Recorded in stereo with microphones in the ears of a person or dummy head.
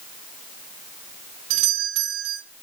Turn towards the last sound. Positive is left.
turn(degrees=-75)  # may be behind; listen again after turning